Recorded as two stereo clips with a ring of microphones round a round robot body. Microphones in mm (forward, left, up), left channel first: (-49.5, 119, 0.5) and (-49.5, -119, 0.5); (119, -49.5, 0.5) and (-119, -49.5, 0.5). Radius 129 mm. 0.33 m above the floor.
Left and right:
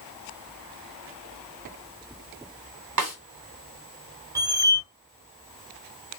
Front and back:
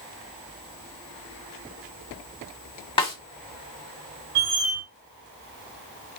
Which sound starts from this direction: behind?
A squeak, at 4.3 s.